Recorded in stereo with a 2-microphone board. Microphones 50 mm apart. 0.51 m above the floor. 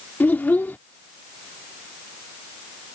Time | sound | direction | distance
0.2 | a child speaking | 35° left (ahead or behind) | ?